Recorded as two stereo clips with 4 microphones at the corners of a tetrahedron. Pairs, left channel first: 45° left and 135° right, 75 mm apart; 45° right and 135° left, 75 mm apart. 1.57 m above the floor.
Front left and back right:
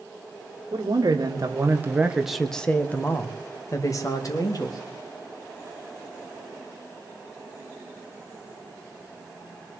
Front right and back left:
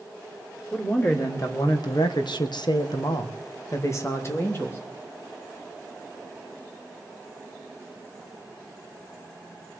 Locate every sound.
0.7 s a man speaking: 105° right, 2.5 m; by 4.8 s 10° left, 3.5 m